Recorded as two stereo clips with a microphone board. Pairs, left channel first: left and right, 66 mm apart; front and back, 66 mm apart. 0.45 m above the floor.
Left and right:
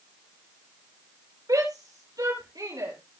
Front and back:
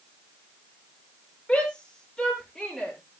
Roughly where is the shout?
Right.